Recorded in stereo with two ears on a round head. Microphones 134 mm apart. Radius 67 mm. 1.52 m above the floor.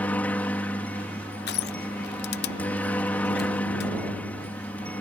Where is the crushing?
75° left (ahead or behind).